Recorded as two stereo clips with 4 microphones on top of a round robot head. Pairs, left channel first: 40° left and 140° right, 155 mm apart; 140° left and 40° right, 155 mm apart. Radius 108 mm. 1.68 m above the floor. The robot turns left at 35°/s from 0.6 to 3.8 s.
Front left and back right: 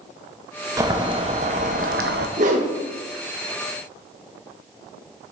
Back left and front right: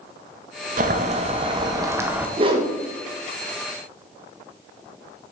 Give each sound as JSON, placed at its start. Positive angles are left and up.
{"t": 0.8, "sound": "boiling", "azimuth_deg": -70, "distance_m": 0.8}
{"t": 2.4, "sound": "a whoosh", "azimuth_deg": -95, "distance_m": 1.2}